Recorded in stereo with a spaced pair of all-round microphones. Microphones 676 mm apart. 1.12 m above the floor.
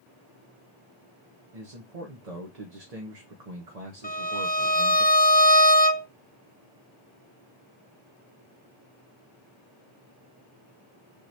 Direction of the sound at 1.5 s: 65° right (ahead or behind).